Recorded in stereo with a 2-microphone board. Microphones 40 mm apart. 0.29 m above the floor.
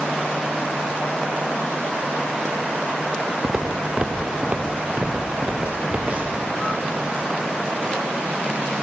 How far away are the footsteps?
About 1.6 m.